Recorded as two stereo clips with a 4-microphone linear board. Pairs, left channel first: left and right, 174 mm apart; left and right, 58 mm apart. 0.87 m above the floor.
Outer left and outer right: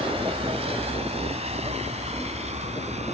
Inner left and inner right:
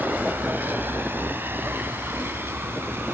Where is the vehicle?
35° right (ahead or behind); by 3.1 s 40° right (ahead or behind).